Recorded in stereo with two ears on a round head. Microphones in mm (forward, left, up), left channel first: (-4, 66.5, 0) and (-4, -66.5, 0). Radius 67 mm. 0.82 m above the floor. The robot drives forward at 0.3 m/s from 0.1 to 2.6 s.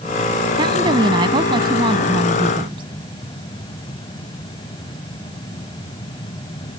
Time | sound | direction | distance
0.6 | a woman speaking | 30° right (ahead or behind) | ?